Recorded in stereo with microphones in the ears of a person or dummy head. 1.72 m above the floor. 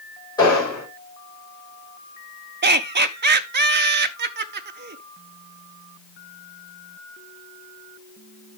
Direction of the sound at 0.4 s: 20° left (ahead or behind).